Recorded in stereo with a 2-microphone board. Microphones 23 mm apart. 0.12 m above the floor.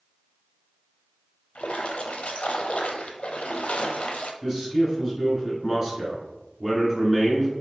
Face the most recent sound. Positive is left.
turn(degrees=-20)  # may be behind; listen again after turning